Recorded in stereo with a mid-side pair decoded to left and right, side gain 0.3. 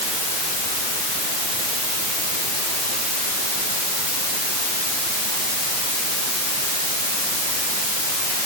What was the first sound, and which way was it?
Only background noise.